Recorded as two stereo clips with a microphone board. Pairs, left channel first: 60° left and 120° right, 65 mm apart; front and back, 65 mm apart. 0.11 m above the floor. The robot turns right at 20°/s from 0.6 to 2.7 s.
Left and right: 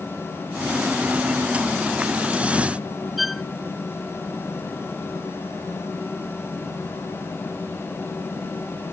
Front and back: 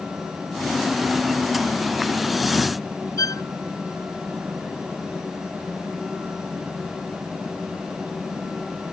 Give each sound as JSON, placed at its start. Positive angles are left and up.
{"t": 3.2, "sound": "a violin", "azimuth_deg": -30}